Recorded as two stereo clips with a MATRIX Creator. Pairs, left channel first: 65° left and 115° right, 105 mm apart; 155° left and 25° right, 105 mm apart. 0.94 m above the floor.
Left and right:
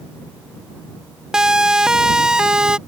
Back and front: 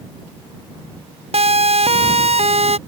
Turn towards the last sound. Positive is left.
turn(degrees=-30)